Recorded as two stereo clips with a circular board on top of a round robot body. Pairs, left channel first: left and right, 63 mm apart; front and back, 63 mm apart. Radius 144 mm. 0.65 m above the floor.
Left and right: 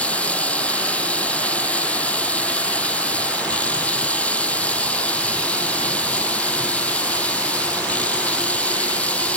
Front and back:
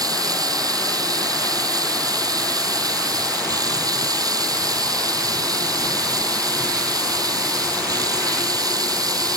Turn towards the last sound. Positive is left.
turn(degrees=160)